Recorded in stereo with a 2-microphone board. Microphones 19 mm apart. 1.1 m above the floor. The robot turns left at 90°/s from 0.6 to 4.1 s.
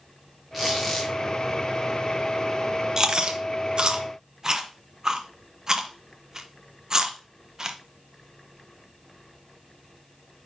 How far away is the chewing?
About 0.9 m.